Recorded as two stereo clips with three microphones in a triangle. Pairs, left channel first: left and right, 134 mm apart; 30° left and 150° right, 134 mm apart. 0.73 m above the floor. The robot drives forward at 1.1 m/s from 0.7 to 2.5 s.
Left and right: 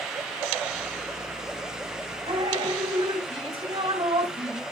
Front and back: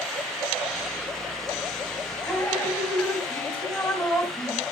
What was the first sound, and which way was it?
Dripping, 45° right.